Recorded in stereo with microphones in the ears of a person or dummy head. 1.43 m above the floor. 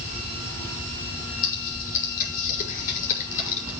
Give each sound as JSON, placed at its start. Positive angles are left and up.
{"t": 1.4, "sound": "typing on a keyboard", "side_deg": 45, "distance_m": 5.0}